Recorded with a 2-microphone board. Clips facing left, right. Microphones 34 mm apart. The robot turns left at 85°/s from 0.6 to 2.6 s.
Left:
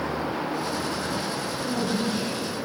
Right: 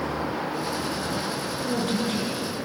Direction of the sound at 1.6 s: 45° right.